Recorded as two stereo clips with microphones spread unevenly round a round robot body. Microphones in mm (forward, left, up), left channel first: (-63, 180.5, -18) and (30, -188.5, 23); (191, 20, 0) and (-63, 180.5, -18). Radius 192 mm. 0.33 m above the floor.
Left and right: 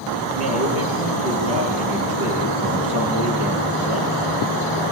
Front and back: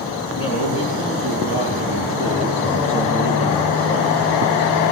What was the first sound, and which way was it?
A man speaking, 125° right.